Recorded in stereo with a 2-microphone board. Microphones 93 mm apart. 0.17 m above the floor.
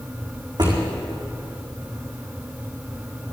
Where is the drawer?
50° right (ahead or behind), 4.5 m.